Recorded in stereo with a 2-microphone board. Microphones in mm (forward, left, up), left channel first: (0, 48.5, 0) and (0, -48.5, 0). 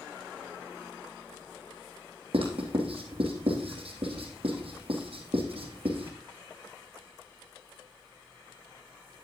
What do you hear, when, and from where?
2.3 s writing: 75° right (ahead or behind), 3.5 m